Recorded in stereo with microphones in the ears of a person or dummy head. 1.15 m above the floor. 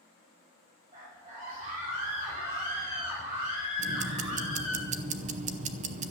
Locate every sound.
0.9 s a scream: 35° right (ahead or behind), 6 m; by 4.8 s 20° right (ahead or behind), 4 m
3.8 s ticking: 35° right (ahead or behind), 0.7 m